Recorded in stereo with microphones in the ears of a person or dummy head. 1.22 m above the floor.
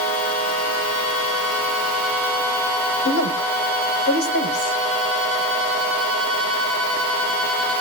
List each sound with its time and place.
3.0 s a woman speaking: 70° left (ahead or behind), 4.5 m